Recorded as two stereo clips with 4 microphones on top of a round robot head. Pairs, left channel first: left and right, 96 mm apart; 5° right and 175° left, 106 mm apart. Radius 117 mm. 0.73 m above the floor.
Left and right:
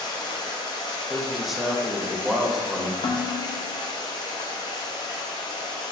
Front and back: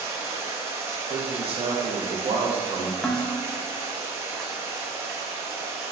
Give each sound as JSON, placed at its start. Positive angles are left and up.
{"t": 0.0, "sound": "running water", "azimuth_deg": 115, "distance_m": 1.0}
{"t": 1.1, "sound": "a man speaking", "azimuth_deg": -175, "distance_m": 0.8}
{"t": 3.0, "sound": "dishes clattering", "azimuth_deg": 75, "distance_m": 0.6}